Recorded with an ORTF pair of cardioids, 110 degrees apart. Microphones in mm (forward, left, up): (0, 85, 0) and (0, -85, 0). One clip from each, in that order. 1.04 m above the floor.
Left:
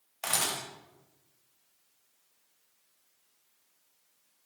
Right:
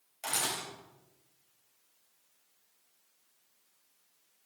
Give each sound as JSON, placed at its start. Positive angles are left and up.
{"t": 0.2, "sound": "a camera shutter", "azimuth_deg": 60, "distance_m": 3.0}